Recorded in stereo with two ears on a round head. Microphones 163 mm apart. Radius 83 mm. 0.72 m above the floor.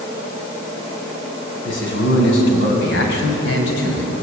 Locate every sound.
1.6 s a man speaking: 80° left, 7 m; by 4.1 s 75° left (ahead or behind), 5 m